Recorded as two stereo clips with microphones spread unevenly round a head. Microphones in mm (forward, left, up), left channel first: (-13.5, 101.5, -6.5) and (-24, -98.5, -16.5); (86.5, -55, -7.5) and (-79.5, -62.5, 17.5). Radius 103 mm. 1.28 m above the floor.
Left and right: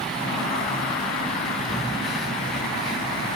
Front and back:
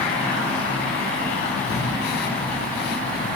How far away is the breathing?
About 1.2 m.